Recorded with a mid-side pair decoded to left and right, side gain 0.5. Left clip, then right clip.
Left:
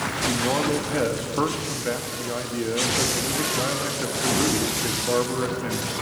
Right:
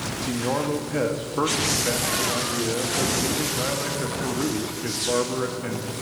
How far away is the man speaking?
About 1.3 m.